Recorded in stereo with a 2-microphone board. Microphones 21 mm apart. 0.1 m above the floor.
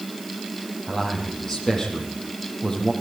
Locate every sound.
0.9 s a man speaking: 25° left (ahead or behind), 4.5 m